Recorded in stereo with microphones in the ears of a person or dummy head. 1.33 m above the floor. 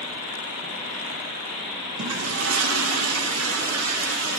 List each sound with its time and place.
2.0 s a toilet flushing: 85° right, 1.2 m